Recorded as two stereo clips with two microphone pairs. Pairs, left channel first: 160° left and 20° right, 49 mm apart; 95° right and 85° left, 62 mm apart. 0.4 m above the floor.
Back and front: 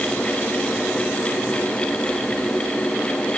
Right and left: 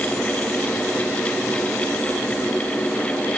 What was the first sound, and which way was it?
Only background noise.